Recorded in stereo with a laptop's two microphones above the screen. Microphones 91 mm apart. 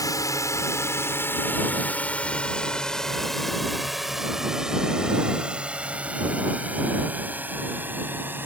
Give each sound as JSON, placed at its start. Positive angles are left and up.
{"t": 0.0, "sound": "a drone", "side_deg": 40}